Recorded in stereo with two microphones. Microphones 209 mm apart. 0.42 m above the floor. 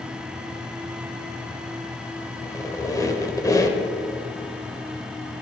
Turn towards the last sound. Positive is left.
turn(degrees=15)  # may be behind; listen again after turning